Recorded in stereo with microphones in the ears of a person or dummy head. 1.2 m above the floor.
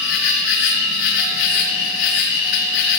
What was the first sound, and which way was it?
An insect, 70° left (ahead or behind).